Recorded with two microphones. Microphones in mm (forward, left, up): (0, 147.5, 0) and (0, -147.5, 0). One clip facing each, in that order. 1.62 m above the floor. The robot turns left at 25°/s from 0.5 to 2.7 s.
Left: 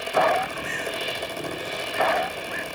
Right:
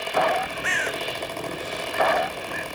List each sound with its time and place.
0.6 s a bird: 80° right, 1.0 m; by 2.6 s 40° right (ahead or behind), 1.0 m